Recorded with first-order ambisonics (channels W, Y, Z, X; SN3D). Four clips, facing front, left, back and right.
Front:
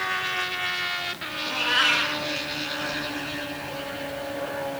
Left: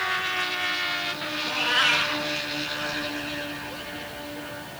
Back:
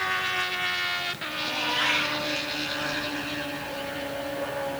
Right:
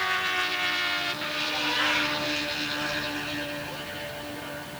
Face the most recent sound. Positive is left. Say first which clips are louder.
# left 5 dB, front 4 dB
turn(degrees=40)